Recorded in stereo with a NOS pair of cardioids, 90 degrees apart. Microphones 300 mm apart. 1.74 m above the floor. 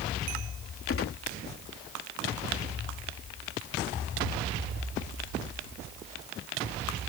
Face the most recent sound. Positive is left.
turn(degrees=45)